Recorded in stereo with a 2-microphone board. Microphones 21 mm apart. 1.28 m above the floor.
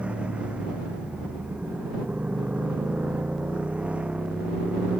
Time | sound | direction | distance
0.0 | a motorcycle | 70° right (ahead or behind) | ?